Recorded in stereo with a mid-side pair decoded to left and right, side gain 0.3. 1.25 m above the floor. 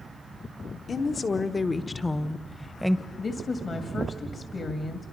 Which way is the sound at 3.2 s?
60° left.